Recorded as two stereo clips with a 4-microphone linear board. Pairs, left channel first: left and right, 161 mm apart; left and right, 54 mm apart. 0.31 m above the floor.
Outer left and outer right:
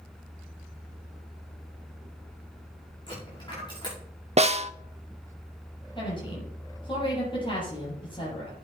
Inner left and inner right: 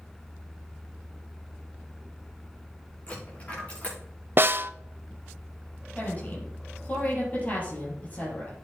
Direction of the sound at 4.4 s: 45° right (ahead or behind).